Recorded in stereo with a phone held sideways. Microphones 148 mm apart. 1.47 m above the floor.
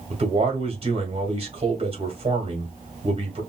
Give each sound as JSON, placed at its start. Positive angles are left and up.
{"t": 0.1, "sound": "a man speaking", "side_deg": -45, "distance_m": 2.0}